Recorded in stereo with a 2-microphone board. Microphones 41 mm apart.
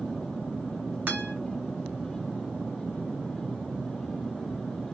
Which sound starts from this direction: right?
A guitar, at 1.1 s.